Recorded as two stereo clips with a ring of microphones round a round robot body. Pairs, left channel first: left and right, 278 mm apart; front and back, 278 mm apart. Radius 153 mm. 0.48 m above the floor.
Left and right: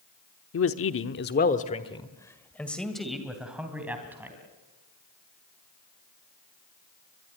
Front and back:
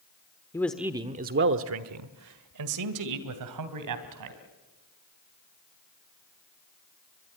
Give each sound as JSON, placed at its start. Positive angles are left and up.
{"t": 0.5, "sound": "a man speaking", "azimuth_deg": 75, "distance_m": 1.0}